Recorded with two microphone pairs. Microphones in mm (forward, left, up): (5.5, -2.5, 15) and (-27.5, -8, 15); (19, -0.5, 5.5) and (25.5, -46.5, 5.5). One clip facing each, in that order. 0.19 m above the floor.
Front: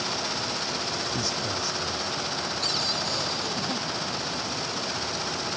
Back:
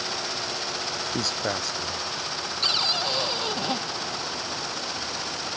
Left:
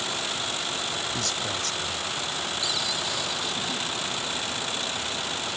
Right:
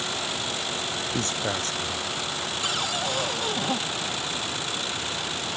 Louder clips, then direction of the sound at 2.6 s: Back 7 dB, right 2 dB; 125° right.